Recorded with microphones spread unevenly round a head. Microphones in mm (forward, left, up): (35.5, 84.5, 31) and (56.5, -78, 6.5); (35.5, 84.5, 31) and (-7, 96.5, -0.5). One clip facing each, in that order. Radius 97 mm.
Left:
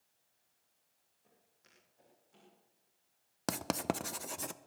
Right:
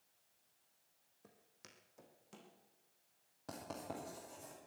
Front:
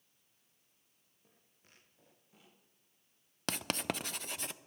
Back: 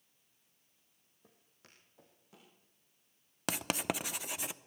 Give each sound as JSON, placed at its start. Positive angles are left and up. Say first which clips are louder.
{"t": 1.2, "sound": "footsteps", "louder": "right 6 dB, back 4 dB", "azimuth_deg": -120, "distance_m": 2.5}
{"t": 3.5, "sound": "writing", "louder": "left 11 dB, back 2 dB", "azimuth_deg": 95, "distance_m": 0.7}